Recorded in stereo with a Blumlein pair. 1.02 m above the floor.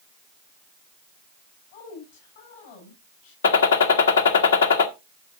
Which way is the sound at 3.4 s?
65° left.